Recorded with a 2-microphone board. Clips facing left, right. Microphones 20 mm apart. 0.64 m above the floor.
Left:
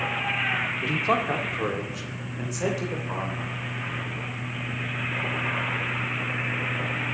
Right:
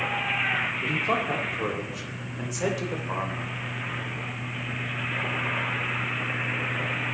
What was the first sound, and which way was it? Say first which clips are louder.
A man speaking: left 1 dB; 45° left (ahead or behind).